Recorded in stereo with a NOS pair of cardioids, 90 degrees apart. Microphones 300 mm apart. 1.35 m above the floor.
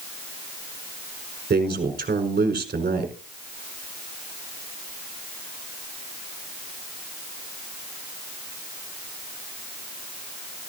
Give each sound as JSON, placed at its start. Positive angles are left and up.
{"t": 1.5, "sound": "a man speaking", "azimuth_deg": -30, "distance_m": 5.0}